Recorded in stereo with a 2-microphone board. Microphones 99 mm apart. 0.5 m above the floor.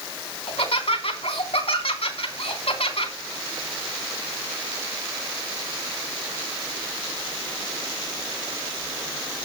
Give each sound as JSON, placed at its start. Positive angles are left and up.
{"t": 0.5, "sound": "laughter", "side_deg": 75, "distance_m": 3.5}